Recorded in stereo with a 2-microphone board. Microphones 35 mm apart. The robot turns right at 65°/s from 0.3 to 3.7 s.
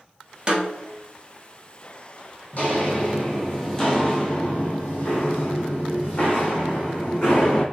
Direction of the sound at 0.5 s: 30° right (ahead or behind).